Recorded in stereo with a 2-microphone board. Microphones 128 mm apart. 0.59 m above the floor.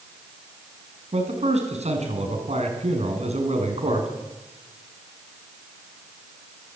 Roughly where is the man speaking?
Right.